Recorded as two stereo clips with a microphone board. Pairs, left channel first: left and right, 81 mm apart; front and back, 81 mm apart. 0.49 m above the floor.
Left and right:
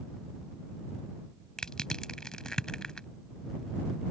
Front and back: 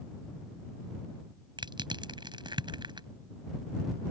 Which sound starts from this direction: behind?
Crushing, at 1.6 s.